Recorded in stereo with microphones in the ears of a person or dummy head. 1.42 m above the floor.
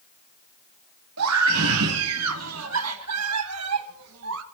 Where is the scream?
75° right (ahead or behind), 3 m.